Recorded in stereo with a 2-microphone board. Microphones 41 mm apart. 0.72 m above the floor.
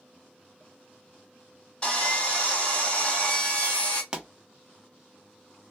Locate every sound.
1.8 s sawing: 20° left (ahead or behind), 2.5 m
4.1 s a pop: 20° right (ahead or behind), 0.9 m